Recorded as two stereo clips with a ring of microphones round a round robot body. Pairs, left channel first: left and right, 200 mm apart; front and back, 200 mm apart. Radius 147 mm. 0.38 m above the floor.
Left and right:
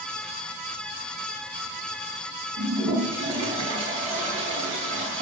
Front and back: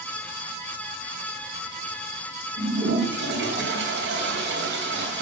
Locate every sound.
2.6 s a toilet flushing: 155° right, 3 m